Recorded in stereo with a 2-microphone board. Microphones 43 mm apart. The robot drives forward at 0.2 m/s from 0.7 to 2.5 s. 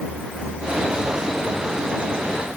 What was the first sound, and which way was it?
Only background noise.